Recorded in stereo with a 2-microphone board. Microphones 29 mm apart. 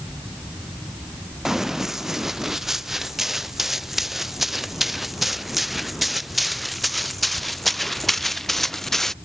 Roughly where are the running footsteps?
Centre.